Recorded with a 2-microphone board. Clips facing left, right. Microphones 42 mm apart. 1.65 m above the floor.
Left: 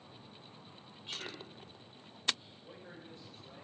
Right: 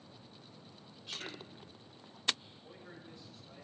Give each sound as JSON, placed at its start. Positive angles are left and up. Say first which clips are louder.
{"t": 1.1, "sound": "a man speaking", "louder": "left 1 dB", "side_deg": 30, "distance_m": 7.0}
{"t": 2.6, "sound": "a man speaking", "louder": "left 1 dB", "side_deg": 40, "distance_m": 8.0}